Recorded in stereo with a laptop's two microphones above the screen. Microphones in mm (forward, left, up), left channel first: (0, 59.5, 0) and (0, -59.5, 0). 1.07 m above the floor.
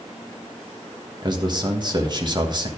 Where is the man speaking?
35° right (ahead or behind), 1.3 m.